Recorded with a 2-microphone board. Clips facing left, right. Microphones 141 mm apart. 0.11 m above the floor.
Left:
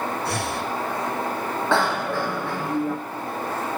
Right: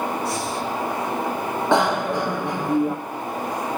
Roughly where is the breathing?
Left.